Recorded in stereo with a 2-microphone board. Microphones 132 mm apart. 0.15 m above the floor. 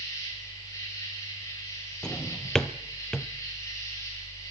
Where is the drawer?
5° left (ahead or behind), 0.9 m.